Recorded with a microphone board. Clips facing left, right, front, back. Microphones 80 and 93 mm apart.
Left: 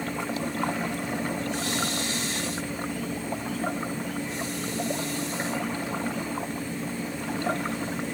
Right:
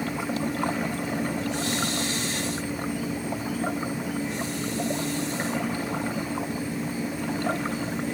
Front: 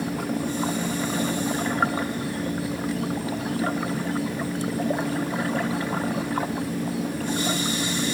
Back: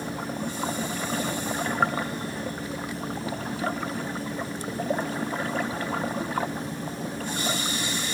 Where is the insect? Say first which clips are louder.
Right 2 dB, front 5 dB; 5° right, 4.5 m.